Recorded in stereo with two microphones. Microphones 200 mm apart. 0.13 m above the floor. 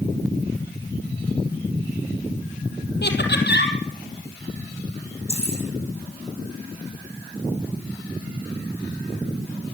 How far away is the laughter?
About 3.5 m.